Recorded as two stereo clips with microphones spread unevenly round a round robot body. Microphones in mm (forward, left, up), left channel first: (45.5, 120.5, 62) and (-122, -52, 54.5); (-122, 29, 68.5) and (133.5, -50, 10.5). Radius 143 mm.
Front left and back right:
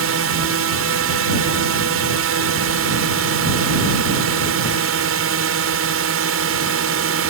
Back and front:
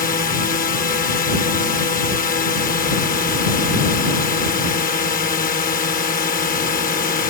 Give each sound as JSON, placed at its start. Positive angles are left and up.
{"t": 0.0, "sound": "a drone", "azimuth_deg": -135}